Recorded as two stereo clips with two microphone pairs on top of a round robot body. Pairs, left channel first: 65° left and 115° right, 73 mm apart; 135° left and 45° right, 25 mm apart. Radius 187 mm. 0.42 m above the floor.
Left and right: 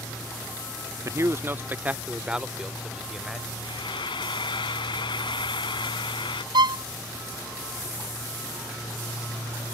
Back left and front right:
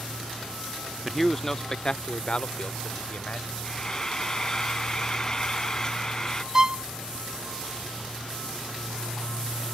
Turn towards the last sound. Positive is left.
turn(degrees=-120)